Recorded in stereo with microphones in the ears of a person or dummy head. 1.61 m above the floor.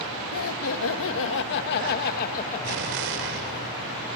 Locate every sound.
0.3 s laughter: 75° left (ahead or behind), 1.9 m; by 3.6 s 25° left (ahead or behind), 1.8 m
2.6 s an explosion: 55° right (ahead or behind), 1.9 m